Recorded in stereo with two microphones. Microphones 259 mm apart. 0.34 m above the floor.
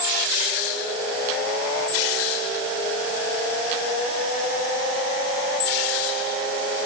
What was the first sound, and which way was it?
Only background noise.